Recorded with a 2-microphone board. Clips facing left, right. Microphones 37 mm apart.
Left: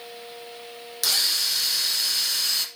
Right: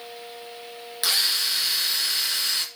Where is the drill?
20° right (ahead or behind), 1.8 m.